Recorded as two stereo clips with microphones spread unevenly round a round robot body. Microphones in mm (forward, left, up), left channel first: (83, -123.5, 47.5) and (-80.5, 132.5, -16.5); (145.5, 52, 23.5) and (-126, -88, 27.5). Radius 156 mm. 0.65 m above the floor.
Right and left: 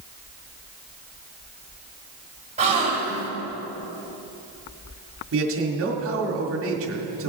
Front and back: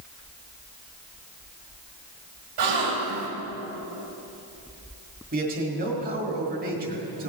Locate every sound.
2.6 s a gasp: 170° right, 2.5 m
5.3 s a man speaking: 150° left, 1.8 m